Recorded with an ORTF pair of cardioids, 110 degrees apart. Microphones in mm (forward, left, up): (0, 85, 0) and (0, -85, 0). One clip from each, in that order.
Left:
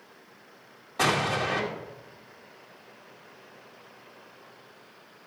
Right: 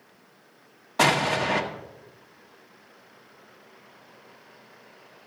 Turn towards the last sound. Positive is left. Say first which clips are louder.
# right 4 dB
turn(degrees=-40)